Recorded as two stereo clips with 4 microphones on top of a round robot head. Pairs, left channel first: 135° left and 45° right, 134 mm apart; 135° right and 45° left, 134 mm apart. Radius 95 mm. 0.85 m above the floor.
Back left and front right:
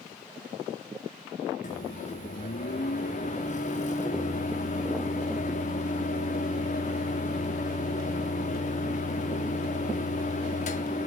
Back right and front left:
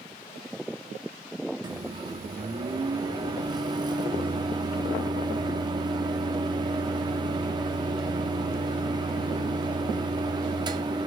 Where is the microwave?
105° left, 1.7 m.